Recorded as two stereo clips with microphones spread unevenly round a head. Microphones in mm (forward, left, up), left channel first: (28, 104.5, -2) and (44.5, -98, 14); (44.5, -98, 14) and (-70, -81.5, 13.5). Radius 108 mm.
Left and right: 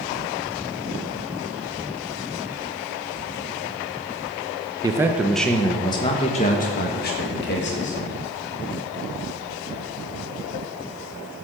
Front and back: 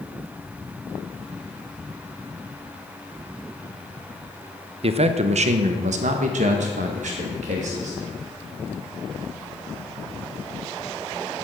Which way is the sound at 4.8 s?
160° right.